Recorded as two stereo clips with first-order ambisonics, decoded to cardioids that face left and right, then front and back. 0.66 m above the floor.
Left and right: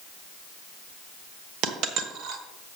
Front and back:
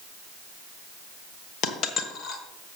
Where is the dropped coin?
50° right, 1.2 m.